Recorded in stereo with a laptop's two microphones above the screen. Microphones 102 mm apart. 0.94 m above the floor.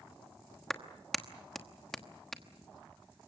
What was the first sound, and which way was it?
A clap, centre (ahead or behind).